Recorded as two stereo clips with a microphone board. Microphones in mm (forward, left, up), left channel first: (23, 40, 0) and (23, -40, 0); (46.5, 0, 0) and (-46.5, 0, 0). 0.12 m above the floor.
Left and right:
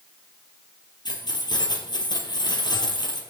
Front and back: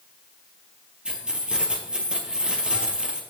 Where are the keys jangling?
100° left, 2.5 m.